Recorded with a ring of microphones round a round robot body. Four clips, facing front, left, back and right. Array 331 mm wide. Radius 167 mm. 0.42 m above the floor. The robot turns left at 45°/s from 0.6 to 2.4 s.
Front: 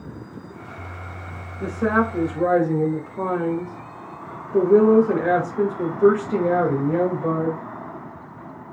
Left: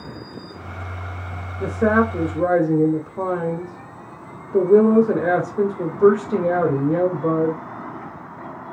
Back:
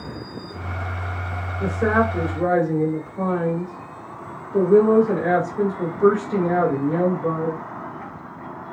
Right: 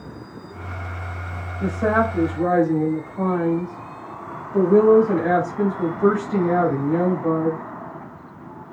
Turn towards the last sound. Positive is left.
turn(degrees=75)